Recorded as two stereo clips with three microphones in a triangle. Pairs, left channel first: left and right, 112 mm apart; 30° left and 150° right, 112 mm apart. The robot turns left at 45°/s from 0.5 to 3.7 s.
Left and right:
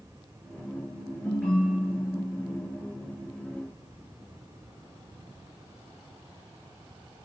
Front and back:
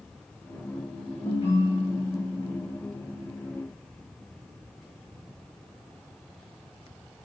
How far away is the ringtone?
About 3 m.